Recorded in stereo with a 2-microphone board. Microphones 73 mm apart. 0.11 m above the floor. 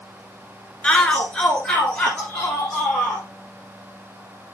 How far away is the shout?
About 1.1 m.